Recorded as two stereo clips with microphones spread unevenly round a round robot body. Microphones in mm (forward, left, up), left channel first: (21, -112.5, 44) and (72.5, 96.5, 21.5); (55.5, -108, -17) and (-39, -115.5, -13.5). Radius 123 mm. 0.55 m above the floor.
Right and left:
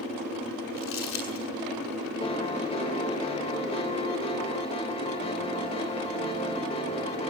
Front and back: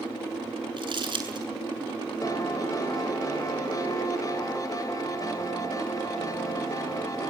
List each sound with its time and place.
0.8 s crumpling: 140° right, 7.5 m
2.2 s a piano: 40° right, 3 m